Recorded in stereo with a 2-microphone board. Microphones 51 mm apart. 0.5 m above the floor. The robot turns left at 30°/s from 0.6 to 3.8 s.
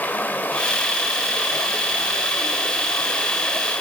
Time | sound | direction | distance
0.0 | running water | 140° left | 2 m